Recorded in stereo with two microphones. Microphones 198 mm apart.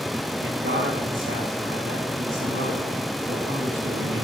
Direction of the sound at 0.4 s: 75° right (ahead or behind).